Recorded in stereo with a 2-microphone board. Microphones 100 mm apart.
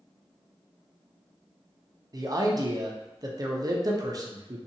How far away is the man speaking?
About 0.5 m.